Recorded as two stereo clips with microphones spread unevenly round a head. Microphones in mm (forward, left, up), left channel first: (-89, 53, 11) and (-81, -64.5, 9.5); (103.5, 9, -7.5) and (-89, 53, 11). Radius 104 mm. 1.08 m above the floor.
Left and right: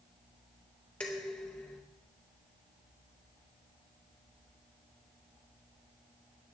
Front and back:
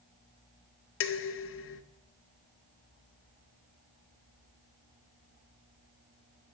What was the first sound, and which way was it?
Dishes clattering, 10° left.